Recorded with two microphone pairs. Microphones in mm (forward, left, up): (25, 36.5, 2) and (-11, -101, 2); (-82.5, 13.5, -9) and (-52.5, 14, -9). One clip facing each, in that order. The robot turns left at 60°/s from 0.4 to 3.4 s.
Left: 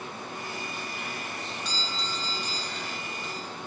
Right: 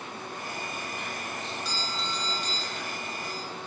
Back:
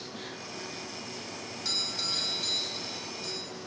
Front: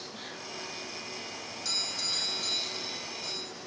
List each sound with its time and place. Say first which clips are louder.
1.6 s a doorbell: right 1 dB, back 1 dB; 170° right, 2.0 m; by 3.5 s 85° left, 2.0 m